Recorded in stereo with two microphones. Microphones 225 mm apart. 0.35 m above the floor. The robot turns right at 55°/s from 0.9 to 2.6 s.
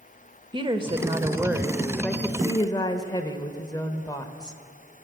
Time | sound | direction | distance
0.5 | a woman speaking | 20° right (ahead or behind) | 0.9 m